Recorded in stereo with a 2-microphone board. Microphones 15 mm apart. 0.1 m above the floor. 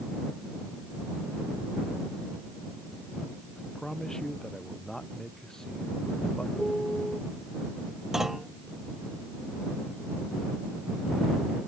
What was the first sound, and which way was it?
A man speaking, 35° left (ahead or behind).